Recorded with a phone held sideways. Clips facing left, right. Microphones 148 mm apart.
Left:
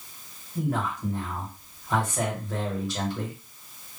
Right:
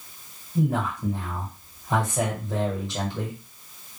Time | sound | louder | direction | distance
0.6 | a man speaking | right 3 dB | 20° right (ahead or behind) | 1.3 m